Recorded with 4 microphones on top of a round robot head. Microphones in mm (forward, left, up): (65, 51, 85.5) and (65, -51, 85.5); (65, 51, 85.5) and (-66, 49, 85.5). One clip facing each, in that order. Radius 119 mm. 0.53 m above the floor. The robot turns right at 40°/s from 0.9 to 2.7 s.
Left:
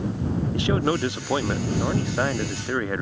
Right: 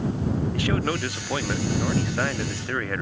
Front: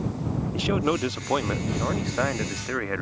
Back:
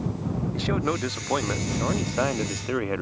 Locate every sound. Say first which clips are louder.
0.5 s a man speaking: left 3 dB, front 3 dB; 60° left; by 3.0 s 135° left